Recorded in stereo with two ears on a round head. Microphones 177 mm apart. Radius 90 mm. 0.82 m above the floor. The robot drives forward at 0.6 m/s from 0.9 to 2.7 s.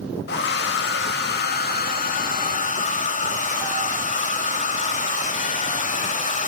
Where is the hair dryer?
55° left (ahead or behind), 1.5 m; by 6.5 s 40° left (ahead or behind), 1.9 m.